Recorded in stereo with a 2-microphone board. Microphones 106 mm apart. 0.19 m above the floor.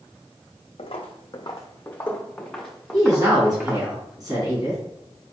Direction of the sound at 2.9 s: 40° right (ahead or behind).